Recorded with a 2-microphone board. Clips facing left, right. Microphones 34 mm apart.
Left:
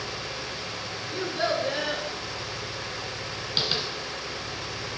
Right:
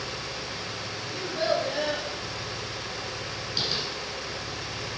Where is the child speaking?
65° left (ahead or behind), 2.5 m.